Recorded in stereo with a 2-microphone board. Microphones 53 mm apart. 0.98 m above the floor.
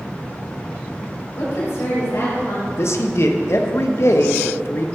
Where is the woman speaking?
80° left, 3.5 m.